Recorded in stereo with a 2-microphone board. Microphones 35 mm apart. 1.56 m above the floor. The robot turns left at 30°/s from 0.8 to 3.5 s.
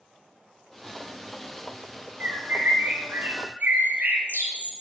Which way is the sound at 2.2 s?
70° right.